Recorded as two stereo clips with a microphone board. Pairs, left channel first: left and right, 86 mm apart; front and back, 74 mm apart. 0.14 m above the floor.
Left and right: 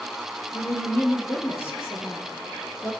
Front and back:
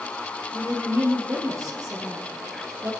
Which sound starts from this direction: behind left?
A woman speaking, at 0.5 s.